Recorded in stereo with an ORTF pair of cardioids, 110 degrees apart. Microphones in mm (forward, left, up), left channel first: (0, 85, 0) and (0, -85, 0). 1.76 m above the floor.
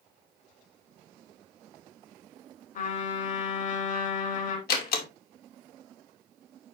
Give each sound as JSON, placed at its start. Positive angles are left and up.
{"t": 2.8, "sound": "a trumpet", "azimuth_deg": 50, "distance_m": 3.5}
{"t": 4.7, "sound": "a door slam", "azimuth_deg": 70, "distance_m": 2.5}